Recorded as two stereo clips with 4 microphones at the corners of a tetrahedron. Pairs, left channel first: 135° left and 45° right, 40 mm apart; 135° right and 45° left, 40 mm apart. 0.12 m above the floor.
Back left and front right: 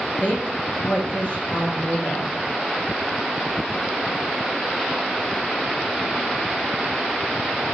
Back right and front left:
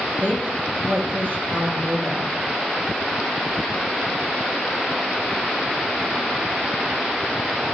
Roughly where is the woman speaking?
Left.